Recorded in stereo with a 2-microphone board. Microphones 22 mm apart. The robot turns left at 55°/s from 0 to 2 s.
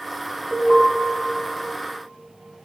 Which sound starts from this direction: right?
An alarm, at 0.5 s.